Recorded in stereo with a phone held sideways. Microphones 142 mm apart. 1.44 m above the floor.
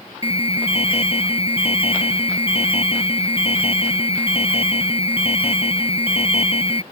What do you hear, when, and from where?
0.2 s an alarm: 40° left (ahead or behind)